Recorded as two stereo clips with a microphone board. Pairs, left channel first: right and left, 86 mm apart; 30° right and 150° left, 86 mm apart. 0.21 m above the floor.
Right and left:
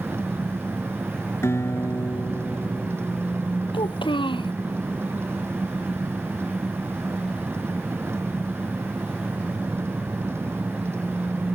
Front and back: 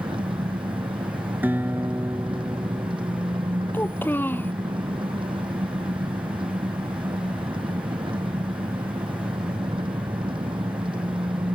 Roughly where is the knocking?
No knocking in this recording.